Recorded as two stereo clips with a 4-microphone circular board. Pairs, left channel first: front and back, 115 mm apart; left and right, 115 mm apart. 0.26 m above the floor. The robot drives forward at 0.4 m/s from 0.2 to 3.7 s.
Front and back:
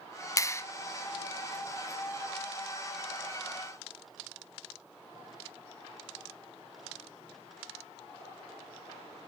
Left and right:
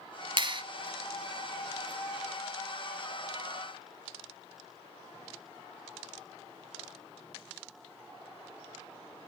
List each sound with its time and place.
0.4 s a clap: 55° right, 1.2 m; by 0.6 s 60° right, 1.2 m